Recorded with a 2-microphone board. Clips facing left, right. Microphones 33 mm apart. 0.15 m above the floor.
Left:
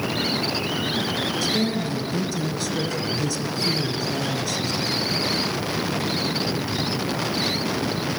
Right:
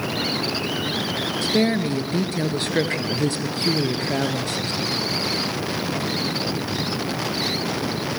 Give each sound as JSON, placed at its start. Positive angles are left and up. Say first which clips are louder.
{"t": 1.4, "sound": "a woman speaking", "louder": "right 7 dB", "side_deg": -45, "distance_m": 2.5}